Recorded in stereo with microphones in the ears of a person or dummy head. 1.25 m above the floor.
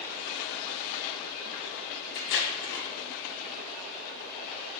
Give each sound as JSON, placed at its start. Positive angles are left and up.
{"t": 2.1, "sound": "tape being pulled", "side_deg": 45, "distance_m": 1.0}